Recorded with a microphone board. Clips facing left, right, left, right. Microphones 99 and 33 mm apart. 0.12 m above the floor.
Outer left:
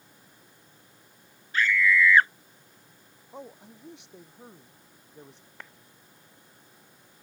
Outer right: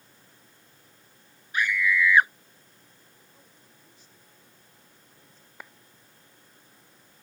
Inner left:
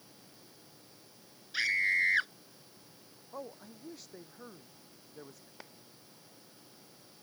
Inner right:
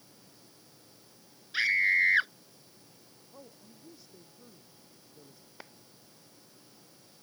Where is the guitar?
I don't hear a guitar.